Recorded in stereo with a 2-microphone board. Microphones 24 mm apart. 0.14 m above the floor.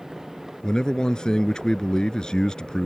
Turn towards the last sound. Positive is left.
turn(degrees=30)  # may be behind; listen again after turning